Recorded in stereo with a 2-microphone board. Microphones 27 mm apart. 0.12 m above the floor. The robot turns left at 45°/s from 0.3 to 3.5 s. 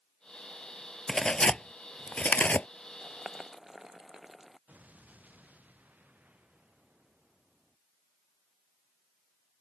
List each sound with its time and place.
1.1 s tearing paper: 15° left (ahead or behind); by 2.7 s 65° left (ahead or behind)
3.0 s boiling: 30° right (ahead or behind); by 4.6 s 10° right (ahead or behind)
4.7 s an explosion: 75° right (ahead or behind)